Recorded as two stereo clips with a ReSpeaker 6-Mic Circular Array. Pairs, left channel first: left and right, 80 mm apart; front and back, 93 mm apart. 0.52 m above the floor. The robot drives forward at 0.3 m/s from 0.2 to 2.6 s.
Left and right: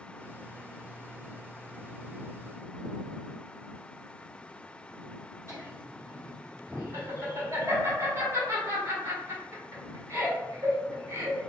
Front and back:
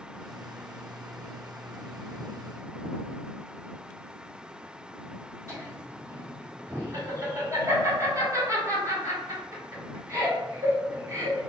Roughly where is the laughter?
Behind right.